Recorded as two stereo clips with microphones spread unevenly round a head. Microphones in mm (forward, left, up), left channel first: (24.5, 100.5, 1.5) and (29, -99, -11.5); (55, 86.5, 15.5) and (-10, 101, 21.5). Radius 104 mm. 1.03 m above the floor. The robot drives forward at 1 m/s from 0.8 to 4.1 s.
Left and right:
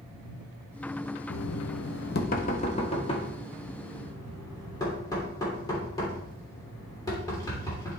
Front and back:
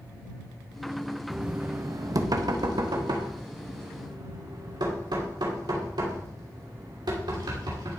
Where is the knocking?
80° left, 0.8 m; by 8.0 s 165° left, 3 m.